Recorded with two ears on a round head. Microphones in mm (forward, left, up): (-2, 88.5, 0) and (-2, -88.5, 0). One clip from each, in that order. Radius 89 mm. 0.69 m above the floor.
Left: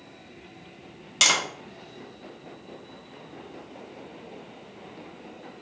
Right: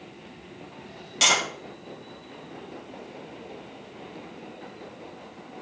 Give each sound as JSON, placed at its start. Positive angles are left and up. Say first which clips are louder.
{"t": 1.2, "sound": "tapping", "louder": "even", "side_deg": 30, "distance_m": 1.1}